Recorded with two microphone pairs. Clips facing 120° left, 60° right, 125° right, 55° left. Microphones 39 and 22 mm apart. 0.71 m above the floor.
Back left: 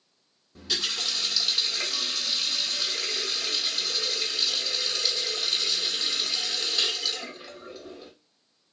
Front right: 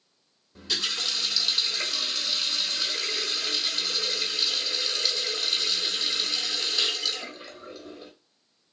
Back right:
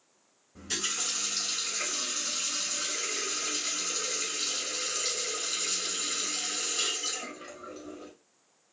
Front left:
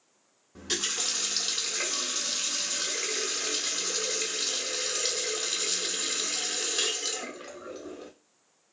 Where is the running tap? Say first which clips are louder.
Even, front left 2 dB; 40° left, 1.2 m.